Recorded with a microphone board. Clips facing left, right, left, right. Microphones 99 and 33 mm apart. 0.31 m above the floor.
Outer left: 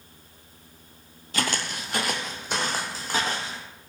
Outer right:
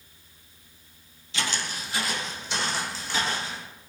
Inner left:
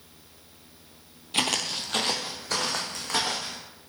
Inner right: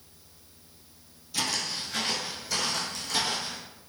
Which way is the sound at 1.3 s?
50° left (ahead or behind).